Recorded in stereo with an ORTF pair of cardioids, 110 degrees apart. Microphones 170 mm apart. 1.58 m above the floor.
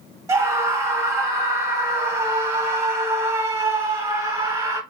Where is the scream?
15° right, 1.6 m.